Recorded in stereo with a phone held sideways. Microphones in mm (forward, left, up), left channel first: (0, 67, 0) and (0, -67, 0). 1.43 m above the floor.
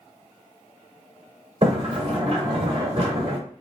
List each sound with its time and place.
1.6 s a sliding door: 45° right (ahead or behind), 1.5 m